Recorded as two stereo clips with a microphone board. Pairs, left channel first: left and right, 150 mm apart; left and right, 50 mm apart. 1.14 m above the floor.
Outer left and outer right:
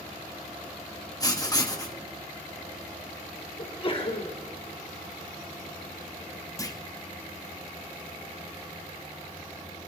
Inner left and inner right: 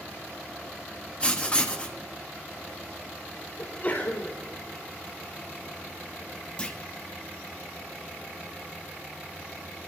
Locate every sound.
1.2 s writing: 25° left (ahead or behind), 2 m
3.6 s a sneeze: 35° left (ahead or behind), 3.5 m
6.6 s a clunk: 20° left (ahead or behind), 1.6 m